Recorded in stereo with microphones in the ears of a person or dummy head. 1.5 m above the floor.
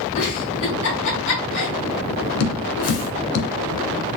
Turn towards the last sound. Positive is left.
turn(degrees=75)  # may be behind; listen again after turning